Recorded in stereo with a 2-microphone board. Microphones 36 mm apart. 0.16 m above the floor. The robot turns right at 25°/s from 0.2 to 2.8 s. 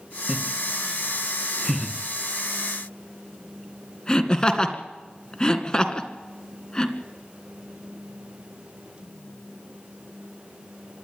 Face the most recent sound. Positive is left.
turn(degrees=20)  # may be behind; listen again after turning